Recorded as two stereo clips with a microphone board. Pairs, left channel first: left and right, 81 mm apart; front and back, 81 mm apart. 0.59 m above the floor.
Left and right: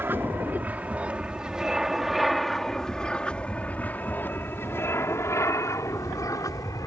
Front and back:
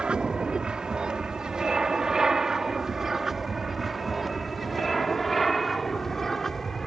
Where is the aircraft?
115° right; by 6.9 s 85° left.